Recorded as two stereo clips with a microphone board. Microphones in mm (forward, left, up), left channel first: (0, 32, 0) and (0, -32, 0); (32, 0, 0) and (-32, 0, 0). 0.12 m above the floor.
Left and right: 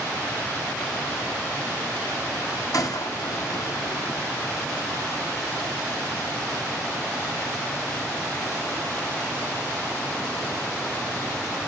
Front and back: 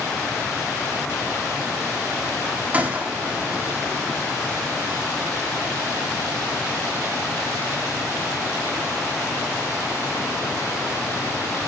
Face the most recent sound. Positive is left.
turn(degrees=110)